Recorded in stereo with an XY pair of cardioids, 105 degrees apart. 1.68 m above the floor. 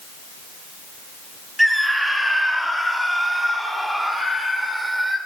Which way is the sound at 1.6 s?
5° right.